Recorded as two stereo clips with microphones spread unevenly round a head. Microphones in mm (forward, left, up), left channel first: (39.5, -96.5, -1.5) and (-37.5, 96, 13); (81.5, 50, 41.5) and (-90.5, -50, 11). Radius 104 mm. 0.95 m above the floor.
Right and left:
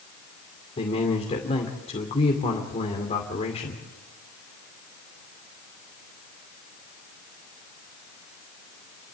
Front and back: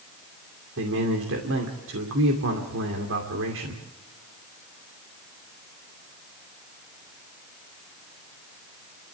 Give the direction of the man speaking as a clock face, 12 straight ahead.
4 o'clock.